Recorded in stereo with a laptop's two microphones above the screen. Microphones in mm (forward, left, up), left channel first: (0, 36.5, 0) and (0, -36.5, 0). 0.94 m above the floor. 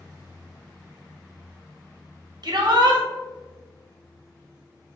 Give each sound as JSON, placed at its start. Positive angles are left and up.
{"t": 2.4, "sound": "a shout", "side_deg": -55, "distance_m": 1.1}